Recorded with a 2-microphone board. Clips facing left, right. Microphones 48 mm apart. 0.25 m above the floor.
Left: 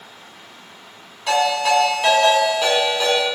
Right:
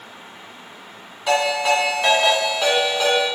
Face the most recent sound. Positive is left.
turn(degrees=-10)  # may be behind; listen again after turning